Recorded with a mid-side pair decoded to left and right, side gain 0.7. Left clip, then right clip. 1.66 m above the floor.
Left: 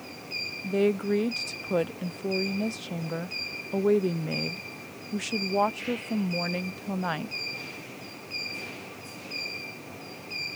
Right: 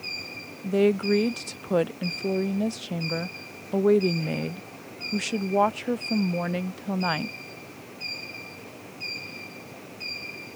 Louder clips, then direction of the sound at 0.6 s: Right 4 dB; 15° right.